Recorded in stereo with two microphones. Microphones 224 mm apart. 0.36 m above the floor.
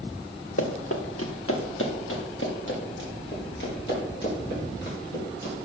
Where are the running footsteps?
80° left, 2 m; by 5.5 s 45° left (ahead or behind), 8 m.